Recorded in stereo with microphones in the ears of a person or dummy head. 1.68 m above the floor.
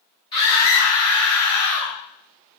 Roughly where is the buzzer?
No buzzer in this recording.